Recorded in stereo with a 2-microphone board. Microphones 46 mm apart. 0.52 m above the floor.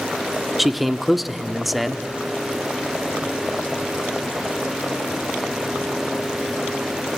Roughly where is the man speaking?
Centre.